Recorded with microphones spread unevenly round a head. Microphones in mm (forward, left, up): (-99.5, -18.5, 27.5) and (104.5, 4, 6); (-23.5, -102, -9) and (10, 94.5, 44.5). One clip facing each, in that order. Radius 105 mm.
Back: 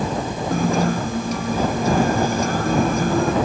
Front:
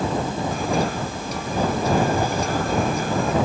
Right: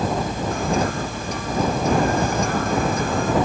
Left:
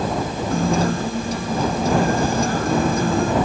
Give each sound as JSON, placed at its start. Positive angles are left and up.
{"t": 0.5, "sound": "a guitar", "azimuth_deg": 135}